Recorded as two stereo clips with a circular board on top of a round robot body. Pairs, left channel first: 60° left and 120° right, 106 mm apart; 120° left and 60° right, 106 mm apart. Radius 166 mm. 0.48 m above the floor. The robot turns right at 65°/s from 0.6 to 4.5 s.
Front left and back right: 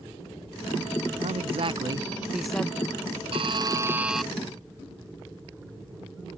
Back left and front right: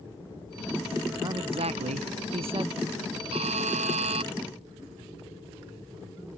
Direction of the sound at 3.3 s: 90° right.